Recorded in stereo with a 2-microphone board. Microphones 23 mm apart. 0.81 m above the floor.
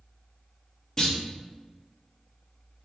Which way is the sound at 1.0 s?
20° left (ahead or behind).